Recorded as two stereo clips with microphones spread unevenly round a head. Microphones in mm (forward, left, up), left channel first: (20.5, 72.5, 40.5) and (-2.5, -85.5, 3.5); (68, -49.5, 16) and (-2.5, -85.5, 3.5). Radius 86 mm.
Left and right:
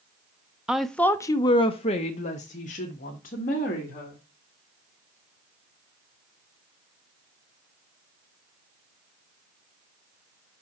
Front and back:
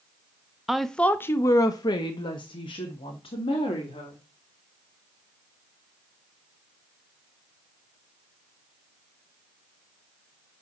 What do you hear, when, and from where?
0.7 s a woman speaking: 110° right, 0.6 m; by 4.2 s 40° left, 2 m